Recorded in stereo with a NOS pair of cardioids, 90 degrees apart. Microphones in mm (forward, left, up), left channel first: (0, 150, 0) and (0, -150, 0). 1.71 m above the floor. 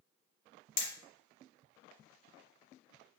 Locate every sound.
0.8 s hammering: 60° left, 1.2 m